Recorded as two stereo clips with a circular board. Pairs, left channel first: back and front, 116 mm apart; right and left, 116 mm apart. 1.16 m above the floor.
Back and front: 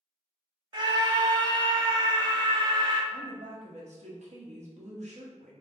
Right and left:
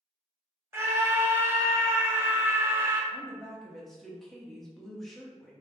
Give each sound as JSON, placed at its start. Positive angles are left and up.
{"t": 0.7, "sound": "a scream", "azimuth_deg": 30, "distance_m": 0.6}
{"t": 3.1, "sound": "a woman speaking", "azimuth_deg": 0, "distance_m": 0.7}